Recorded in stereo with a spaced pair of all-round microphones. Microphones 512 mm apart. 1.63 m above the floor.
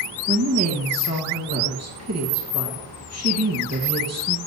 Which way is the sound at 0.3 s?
30° right (ahead or behind).